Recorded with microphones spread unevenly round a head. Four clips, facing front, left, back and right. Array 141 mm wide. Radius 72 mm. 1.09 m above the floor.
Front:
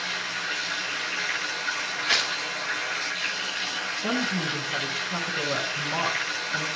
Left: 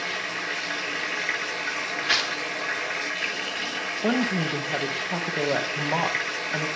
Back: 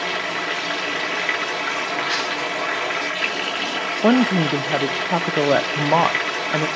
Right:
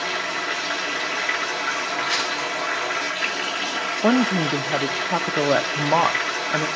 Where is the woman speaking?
160° right, 0.9 m.